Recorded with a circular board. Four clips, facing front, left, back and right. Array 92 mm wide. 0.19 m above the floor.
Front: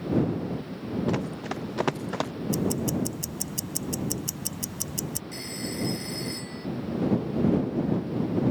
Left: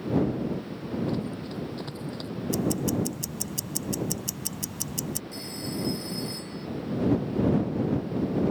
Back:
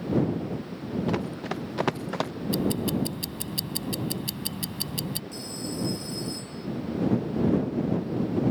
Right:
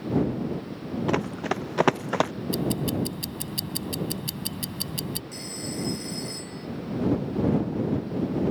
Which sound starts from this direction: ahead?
A phone ringing, at 5.3 s.